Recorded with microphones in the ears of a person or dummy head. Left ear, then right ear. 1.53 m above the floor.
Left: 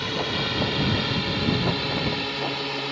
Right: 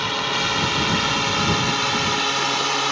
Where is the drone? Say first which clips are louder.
Right 4 dB; 35° right (ahead or behind); by 2.9 s 45° right (ahead or behind).